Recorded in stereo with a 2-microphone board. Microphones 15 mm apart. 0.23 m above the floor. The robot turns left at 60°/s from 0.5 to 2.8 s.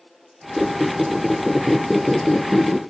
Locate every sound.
0.6 s a squeak: 125° right, 0.5 m; by 2.8 s 105° left, 0.5 m